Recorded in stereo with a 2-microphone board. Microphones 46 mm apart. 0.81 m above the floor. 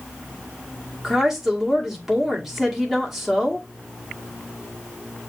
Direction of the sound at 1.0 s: 5° right (ahead or behind).